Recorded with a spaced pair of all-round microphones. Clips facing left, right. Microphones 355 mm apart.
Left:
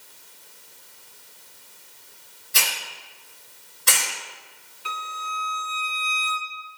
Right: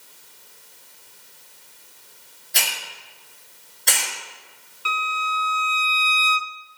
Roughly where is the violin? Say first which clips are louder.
Right 5 dB; centre.